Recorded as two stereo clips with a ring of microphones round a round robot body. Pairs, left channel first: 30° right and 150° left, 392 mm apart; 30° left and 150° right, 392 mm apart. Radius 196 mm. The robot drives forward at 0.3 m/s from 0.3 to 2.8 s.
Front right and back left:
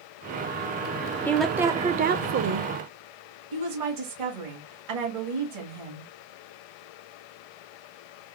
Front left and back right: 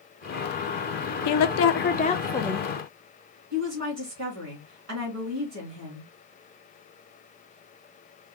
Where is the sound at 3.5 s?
160° left, 2.5 m.